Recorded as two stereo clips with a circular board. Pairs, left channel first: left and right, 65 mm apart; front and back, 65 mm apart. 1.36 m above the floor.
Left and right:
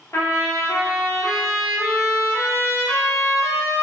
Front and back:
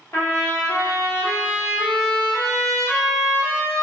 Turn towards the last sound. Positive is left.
turn(degrees=45)